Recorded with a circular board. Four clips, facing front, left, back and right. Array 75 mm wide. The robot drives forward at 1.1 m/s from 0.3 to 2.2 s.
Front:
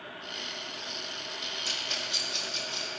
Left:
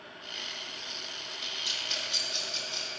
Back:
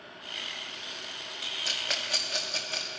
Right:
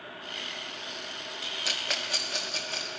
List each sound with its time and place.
1.6 s a rattle: 95° right, 0.5 m; by 2.9 s 145° right, 0.8 m